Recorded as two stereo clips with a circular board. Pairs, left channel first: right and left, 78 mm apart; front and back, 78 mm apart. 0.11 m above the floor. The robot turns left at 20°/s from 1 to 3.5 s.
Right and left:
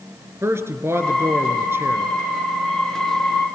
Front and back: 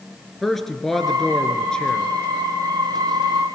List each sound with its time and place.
0.4 s a man speaking: 85° left, 1.6 m; by 2.1 s 65° left, 1.6 m